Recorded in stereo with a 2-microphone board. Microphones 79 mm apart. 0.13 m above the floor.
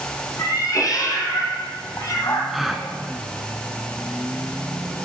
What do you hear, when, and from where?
0.4 s a cat meowing: 50° left (ahead or behind), 2.5 m
2.5 s a gasp: centre (ahead or behind), 1.6 m